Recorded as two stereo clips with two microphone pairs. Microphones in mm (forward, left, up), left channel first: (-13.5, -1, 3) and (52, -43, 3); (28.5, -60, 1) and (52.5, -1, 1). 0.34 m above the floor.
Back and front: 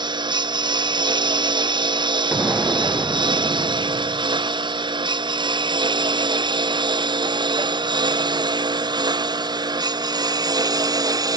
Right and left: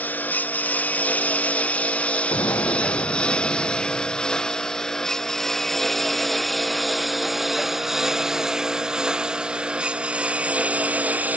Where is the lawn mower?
50° right; by 11.4 s straight ahead.